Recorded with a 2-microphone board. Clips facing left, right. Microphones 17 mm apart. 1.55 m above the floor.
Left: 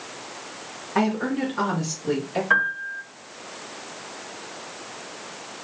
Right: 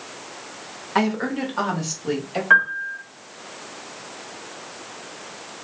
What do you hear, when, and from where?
0.9 s a woman speaking: 60° right (ahead or behind), 1.1 m; by 2.4 s 45° right (ahead or behind), 1.7 m
2.5 s a piano: 20° right (ahead or behind), 1.1 m